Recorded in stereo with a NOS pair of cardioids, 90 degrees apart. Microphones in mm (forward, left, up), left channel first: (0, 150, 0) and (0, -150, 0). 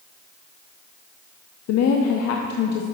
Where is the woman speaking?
60° left, 0.6 m.